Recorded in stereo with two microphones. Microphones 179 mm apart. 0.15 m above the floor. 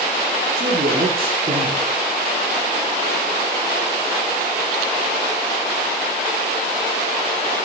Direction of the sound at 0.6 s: 55° right (ahead or behind).